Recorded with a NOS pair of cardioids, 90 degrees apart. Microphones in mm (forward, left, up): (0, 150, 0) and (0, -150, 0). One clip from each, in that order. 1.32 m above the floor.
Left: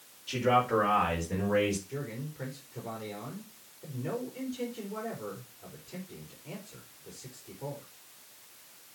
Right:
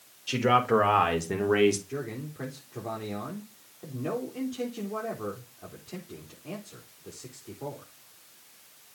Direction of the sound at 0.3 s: 55° right.